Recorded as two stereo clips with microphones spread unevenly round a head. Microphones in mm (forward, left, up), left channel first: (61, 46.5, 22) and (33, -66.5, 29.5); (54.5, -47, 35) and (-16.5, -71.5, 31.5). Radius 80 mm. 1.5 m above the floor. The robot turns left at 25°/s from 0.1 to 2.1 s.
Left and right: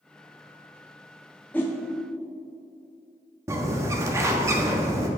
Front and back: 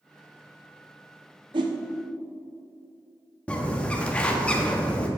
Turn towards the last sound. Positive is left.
turn(degrees=-50)